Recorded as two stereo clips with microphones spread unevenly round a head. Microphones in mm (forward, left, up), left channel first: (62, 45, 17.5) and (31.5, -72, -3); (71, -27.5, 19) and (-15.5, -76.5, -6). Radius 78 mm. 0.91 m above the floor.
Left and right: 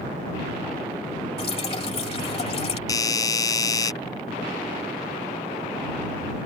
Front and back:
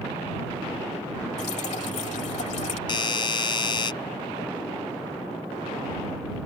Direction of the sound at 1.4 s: 40° left.